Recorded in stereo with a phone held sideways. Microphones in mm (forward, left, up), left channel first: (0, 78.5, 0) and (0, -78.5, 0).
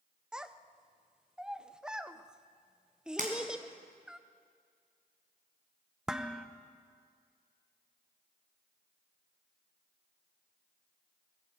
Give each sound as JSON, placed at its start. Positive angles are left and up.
{"t": 0.3, "sound": "a child speaking", "side_deg": -5, "distance_m": 0.6}
{"t": 3.2, "sound": "breaking glass", "side_deg": -60, "distance_m": 3.0}
{"t": 6.1, "sound": "dishes clattering", "side_deg": -5, "distance_m": 0.6}